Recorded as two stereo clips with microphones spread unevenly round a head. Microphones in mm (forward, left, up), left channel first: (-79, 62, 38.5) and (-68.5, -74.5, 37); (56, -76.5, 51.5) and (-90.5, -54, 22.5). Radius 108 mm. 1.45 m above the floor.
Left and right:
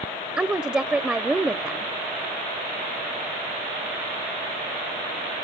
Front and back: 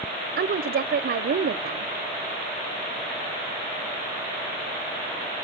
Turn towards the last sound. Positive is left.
turn(degrees=-165)